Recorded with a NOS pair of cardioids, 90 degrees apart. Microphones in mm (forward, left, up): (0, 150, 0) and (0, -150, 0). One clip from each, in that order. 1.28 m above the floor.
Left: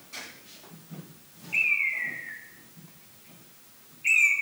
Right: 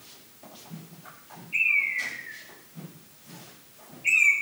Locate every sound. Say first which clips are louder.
1.5 s a bird: right 1 dB; 15° left, 1.5 m